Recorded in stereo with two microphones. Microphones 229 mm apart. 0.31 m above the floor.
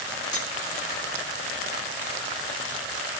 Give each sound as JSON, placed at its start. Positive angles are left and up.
{"t": 0.3, "sound": "cutlery clinking", "side_deg": 65, "distance_m": 1.7}